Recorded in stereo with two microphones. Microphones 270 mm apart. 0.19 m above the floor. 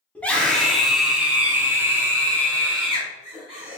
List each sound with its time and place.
0.1 s a scream: 5° left (ahead or behind), 1.7 m; by 3.8 s 20° right (ahead or behind), 2 m